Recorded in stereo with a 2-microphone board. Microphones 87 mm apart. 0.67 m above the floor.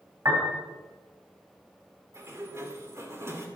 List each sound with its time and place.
0.2 s a piano: 45° right (ahead or behind), 3.5 m
2.1 s a sliding door: 30° right (ahead or behind), 2.5 m